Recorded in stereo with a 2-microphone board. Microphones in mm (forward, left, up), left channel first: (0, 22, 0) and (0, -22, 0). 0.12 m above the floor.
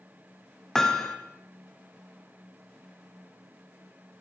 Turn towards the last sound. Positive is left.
turn(degrees=10)  # may be behind; listen again after turning